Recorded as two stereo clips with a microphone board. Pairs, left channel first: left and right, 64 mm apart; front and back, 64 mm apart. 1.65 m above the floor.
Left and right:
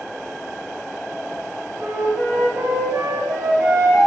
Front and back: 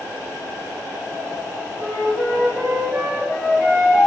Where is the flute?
110° right, 1.0 m.